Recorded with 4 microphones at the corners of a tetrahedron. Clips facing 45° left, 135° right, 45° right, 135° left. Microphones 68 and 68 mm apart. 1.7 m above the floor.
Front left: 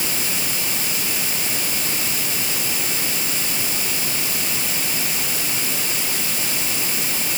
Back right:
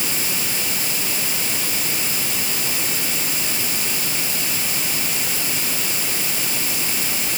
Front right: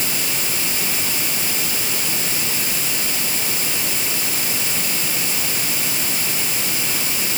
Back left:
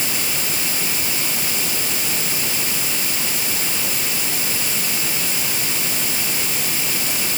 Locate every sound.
Only background noise.